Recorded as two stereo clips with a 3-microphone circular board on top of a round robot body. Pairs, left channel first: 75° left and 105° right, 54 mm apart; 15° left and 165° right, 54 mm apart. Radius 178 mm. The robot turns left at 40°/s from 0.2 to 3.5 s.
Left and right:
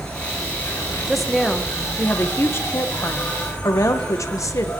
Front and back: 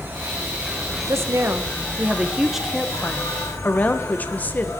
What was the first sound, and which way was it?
An insect, 145° left.